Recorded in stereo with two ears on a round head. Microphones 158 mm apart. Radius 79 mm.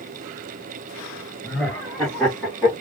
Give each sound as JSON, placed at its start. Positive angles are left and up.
{"t": 1.4, "sound": "laughter", "side_deg": 5, "distance_m": 1.6}